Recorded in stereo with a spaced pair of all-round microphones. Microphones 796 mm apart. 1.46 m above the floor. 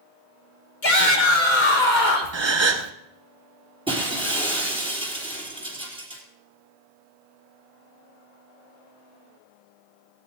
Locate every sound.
0.8 s a shout: 70° left (ahead or behind), 2.5 m
2.3 s a gasp: 35° right (ahead or behind), 1.0 m
3.9 s breaking glass: 5° right (ahead or behind), 3.5 m